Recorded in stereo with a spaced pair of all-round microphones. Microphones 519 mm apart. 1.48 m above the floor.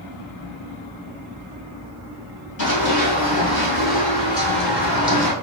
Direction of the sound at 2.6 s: 40° left (ahead or behind).